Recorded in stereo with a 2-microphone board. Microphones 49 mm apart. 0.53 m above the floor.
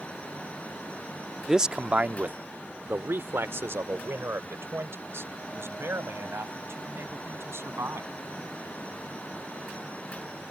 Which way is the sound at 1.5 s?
10° right (ahead or behind).